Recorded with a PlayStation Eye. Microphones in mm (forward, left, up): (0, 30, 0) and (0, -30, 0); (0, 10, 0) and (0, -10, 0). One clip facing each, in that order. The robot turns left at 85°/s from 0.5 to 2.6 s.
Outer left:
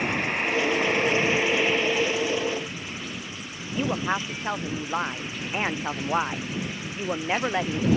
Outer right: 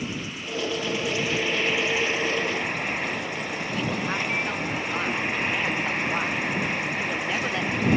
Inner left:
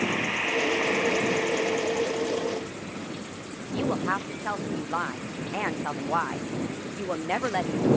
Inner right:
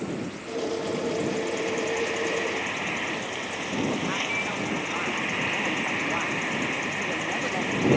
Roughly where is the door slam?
No door slam in this recording.